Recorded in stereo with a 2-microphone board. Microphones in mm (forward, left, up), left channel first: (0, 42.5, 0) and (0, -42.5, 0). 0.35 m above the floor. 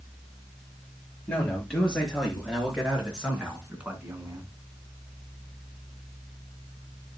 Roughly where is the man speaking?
Centre.